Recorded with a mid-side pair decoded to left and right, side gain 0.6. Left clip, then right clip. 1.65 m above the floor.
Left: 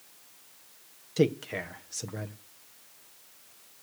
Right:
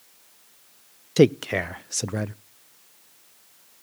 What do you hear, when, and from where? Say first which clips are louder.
1.2 s a man speaking: right 8 dB; 50° right, 0.5 m